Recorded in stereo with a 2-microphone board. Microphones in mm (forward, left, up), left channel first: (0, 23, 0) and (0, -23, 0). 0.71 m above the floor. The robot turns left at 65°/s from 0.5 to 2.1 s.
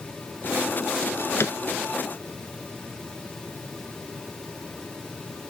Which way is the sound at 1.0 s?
90° left.